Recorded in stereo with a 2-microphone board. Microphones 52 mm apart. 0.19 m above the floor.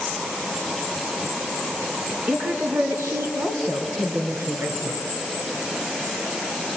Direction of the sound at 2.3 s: 50° right (ahead or behind).